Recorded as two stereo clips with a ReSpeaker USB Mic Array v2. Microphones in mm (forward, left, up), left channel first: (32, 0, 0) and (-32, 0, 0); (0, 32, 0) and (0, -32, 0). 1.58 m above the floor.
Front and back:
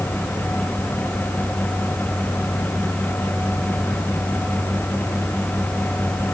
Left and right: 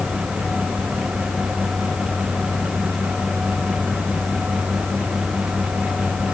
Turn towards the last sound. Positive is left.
No sound to turn to.